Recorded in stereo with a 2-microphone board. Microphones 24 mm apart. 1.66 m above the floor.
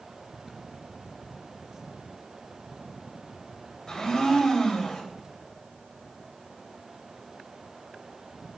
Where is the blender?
20° left (ahead or behind), 2.5 m.